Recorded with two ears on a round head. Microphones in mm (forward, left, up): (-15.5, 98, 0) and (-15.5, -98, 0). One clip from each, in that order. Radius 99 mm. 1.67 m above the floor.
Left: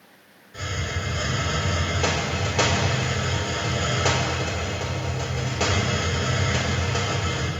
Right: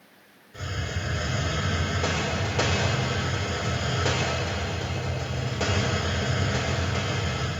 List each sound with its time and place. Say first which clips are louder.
0.5 s a hiss: left 4 dB; 30° left (ahead or behind), 5 m